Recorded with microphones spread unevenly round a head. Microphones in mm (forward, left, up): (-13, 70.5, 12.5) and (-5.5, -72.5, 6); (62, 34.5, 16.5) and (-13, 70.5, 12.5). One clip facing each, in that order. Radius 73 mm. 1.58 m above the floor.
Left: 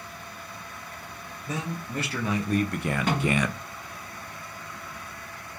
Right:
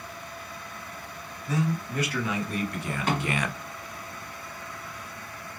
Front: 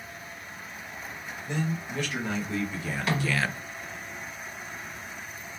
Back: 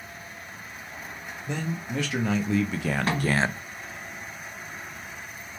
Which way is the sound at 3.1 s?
100° left.